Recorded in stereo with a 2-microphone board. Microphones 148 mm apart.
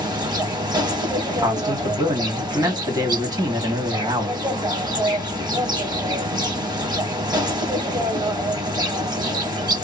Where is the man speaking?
25° right (ahead or behind), 1.2 m.